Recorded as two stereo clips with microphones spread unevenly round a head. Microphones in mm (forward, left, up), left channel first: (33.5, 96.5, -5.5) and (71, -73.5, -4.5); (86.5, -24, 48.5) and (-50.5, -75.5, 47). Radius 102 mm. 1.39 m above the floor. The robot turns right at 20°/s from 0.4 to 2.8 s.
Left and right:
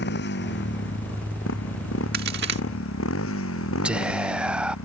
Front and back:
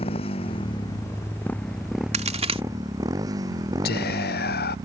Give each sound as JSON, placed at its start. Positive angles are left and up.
{"t": 0.0, "sound": "a motorcycle", "azimuth_deg": 80}
{"t": 2.1, "sound": "a crack", "azimuth_deg": -120}
{"t": 3.9, "sound": "whispering", "azimuth_deg": 5}